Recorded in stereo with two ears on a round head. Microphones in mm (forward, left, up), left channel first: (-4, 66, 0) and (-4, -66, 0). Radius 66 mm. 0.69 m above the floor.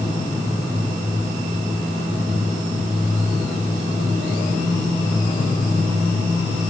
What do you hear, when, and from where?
Only background noise.